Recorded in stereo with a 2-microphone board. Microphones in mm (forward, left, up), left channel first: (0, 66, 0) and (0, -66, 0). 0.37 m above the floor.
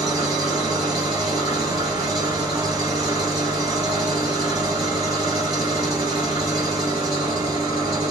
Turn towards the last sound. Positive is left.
turn(degrees=-35)  # may be behind; listen again after turning